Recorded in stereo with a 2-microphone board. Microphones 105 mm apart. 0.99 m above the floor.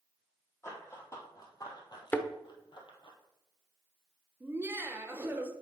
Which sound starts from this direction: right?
Laughter, at 4.4 s.